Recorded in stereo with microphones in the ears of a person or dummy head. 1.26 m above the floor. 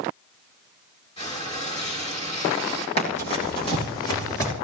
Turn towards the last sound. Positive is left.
turn(degrees=15)  # may be behind; listen again after turning